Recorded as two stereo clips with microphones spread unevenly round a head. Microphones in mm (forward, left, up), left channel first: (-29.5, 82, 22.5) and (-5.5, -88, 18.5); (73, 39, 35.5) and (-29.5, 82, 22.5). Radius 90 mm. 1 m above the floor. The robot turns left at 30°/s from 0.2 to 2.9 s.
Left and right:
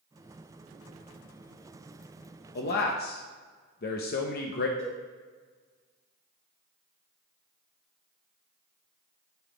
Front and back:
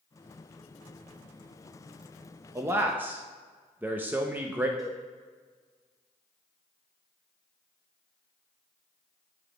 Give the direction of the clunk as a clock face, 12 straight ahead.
No clunk in this recording.